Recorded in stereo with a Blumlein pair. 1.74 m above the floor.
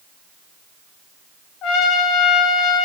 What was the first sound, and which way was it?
A trumpet, 35° left.